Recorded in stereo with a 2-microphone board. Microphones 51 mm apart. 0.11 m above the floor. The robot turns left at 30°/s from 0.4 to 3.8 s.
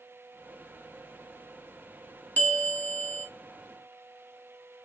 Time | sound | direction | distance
2.4 | a bell | 30° left (ahead or behind) | 0.9 m